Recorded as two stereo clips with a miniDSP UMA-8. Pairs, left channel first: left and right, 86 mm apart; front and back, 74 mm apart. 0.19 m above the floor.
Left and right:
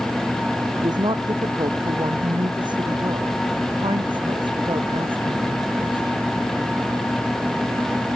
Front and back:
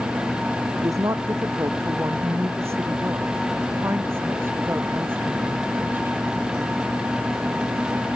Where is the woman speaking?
130° right; by 6.3 s 115° right.